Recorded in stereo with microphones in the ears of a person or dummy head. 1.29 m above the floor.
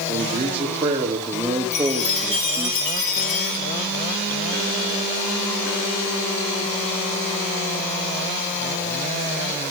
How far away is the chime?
About 4 m.